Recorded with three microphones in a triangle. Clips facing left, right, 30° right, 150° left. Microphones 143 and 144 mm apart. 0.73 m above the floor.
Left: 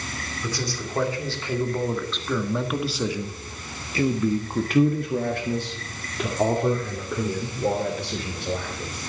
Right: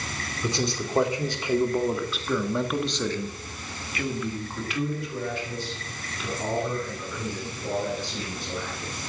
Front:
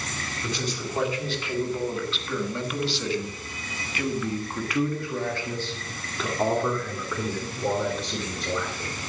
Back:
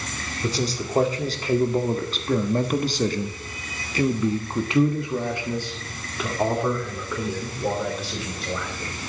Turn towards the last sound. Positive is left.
turn(degrees=55)